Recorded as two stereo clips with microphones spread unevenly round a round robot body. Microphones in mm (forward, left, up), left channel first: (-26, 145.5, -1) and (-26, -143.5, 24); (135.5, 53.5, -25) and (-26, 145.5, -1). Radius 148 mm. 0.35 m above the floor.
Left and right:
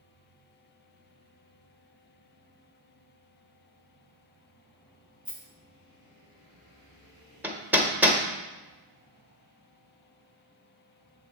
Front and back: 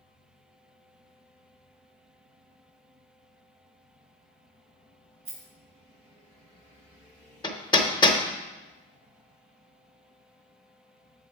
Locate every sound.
5.2 s a rattle: straight behind, 3 m
7.4 s hammering: straight ahead, 0.8 m